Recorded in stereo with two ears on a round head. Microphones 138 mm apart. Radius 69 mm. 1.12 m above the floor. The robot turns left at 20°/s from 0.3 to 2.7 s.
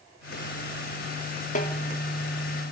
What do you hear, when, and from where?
1.6 s a snare drum: 55° left (ahead or behind), 1.8 m